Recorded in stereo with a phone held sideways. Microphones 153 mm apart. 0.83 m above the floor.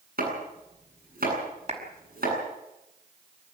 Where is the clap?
45° right (ahead or behind), 5.5 m.